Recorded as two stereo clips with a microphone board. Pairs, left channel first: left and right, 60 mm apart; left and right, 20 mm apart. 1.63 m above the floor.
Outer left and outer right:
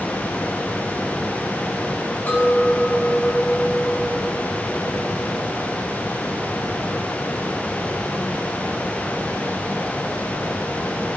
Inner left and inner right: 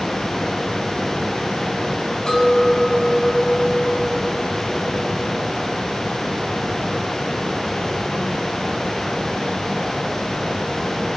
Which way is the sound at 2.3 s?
35° left (ahead or behind).